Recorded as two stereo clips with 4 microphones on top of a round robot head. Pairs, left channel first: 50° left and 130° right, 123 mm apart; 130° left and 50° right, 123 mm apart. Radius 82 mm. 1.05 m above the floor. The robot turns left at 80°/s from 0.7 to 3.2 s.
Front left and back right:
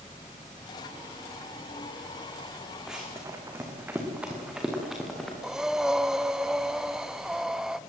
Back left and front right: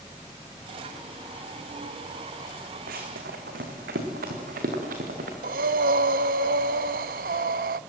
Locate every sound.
2.9 s running footsteps: 40° right, 4 m; by 5.3 s 35° right, 5.5 m
5.4 s breathing: 45° right, 0.5 m